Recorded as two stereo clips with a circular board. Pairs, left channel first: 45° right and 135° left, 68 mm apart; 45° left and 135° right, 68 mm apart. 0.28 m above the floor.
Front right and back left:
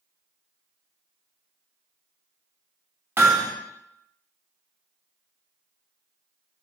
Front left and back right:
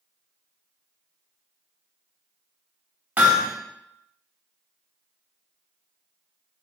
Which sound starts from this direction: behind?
Hammering, at 3.2 s.